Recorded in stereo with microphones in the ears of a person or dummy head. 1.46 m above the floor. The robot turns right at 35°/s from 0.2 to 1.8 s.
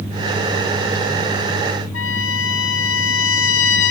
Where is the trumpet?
80° left, 3 m.